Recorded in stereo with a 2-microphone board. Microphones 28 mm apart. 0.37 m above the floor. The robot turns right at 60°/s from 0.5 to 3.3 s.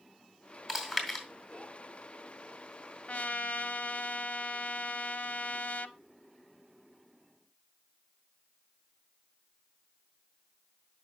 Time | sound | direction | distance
0.7 | chewing | 20° right (ahead or behind) | 2.5 m
3.1 | a trumpet | 55° left (ahead or behind) | 0.6 m